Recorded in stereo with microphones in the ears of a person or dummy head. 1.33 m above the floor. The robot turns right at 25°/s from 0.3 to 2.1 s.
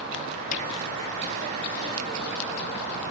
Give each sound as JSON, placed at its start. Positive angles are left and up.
{"t": 0.5, "sound": "hammering", "side_deg": 40}